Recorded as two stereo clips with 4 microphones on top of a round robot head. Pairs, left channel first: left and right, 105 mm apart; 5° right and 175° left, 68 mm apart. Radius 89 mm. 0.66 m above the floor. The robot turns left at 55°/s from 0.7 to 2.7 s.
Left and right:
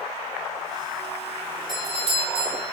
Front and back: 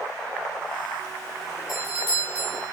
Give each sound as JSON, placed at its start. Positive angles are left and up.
{"t": 1.7, "sound": "a doorbell", "azimuth_deg": -40, "distance_m": 5.0}